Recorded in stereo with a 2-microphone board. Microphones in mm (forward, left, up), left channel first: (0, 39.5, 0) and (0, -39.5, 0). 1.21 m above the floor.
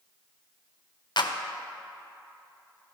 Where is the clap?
65° left (ahead or behind), 0.6 m.